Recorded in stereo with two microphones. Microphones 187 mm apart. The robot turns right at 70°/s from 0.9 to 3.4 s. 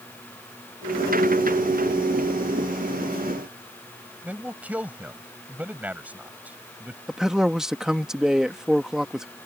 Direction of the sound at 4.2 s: 10° right (ahead or behind).